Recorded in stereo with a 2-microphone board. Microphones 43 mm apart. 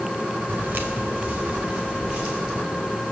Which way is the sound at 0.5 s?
50° right (ahead or behind).